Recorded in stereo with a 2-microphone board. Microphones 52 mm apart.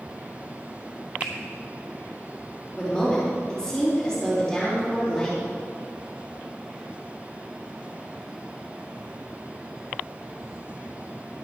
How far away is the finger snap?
About 3 m.